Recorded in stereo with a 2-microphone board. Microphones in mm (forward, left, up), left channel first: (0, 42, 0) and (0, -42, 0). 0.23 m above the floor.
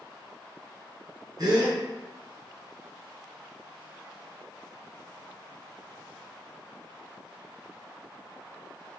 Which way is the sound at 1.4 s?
50° right (ahead or behind).